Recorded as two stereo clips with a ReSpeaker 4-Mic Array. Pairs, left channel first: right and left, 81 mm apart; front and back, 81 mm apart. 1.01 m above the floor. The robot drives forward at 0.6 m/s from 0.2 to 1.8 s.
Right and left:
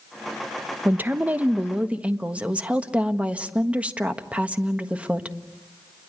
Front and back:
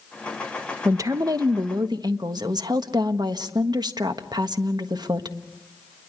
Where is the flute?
No flute in this recording.